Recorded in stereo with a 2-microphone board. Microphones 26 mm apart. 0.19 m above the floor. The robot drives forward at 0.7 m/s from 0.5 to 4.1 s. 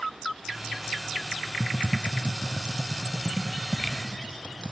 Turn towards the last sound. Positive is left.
turn(degrees=-20)  # may be behind; listen again after turning